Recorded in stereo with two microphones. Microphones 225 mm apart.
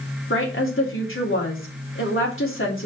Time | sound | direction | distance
0.3 | a woman speaking | 65° left (ahead or behind) | 3 m